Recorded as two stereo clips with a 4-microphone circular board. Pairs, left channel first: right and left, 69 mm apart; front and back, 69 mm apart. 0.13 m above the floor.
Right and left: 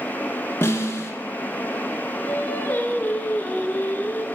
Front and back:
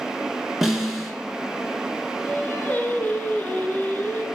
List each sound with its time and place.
0.6 s a snare drum: 100° right, 1.1 m
2.2 s singing: 45° right, 0.9 m